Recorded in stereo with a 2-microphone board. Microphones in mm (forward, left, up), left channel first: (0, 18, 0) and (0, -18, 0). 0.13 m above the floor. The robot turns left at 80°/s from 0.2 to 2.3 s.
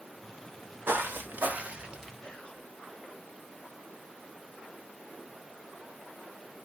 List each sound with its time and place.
0.9 s footsteps: 75° right (ahead or behind), 1.9 m; by 2.1 s 5° right (ahead or behind), 2.5 m
2.2 s whispering: 20° left (ahead or behind), 1.8 m; by 2.6 s 25° left (ahead or behind), 1.8 m